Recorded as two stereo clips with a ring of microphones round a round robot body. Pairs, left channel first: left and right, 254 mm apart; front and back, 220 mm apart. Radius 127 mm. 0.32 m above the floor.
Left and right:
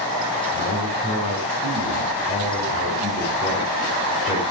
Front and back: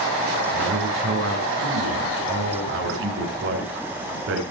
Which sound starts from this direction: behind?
A man speaking, at 0.5 s.